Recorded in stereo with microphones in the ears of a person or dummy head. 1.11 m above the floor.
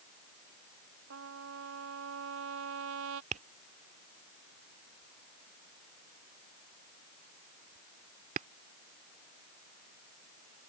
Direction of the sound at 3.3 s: 35° right (ahead or behind).